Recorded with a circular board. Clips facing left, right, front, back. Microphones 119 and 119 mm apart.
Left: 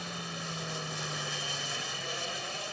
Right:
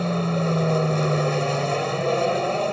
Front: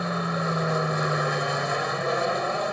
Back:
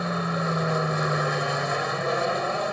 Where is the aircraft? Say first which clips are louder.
Right 18 dB, even; 90° right.